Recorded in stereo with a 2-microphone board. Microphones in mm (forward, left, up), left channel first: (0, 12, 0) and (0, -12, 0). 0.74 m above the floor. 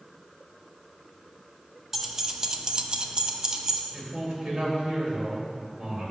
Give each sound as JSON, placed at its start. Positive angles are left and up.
{"t": 1.9, "sound": "keys jangling", "side_deg": -15, "distance_m": 0.8}
{"t": 3.9, "sound": "a man speaking", "side_deg": -45, "distance_m": 2.5}